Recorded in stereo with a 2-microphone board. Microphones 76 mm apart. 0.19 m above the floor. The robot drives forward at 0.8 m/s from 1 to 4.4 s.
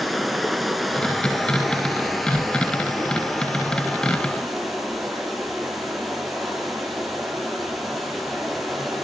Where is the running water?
Centre (ahead or behind), 2 m.